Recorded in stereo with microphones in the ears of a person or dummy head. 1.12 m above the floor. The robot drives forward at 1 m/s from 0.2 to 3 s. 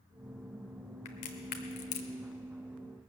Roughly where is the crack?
Left.